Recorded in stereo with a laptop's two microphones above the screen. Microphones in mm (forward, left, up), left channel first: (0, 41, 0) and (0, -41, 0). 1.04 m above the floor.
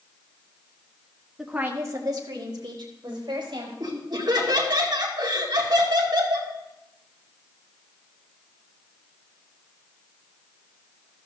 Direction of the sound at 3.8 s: 55° right (ahead or behind).